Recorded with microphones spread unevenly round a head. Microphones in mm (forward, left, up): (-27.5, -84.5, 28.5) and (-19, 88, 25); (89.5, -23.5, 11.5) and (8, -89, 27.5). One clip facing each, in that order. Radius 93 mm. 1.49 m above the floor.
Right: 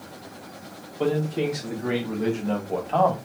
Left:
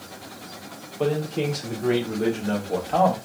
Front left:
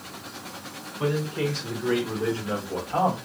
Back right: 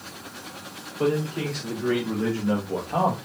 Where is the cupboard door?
I don't hear a cupboard door.